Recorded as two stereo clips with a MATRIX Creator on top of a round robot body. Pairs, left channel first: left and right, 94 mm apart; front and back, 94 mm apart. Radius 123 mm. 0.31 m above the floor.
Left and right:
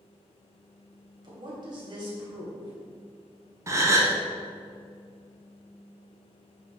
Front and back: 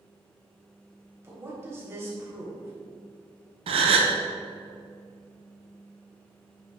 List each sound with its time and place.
1.2 s a woman speaking: 120° right, 3 m
3.7 s a gasp: 150° right, 0.5 m